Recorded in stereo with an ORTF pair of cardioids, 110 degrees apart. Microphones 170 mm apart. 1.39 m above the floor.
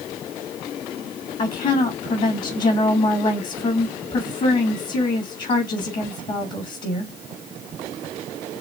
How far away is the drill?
No drill in this recording.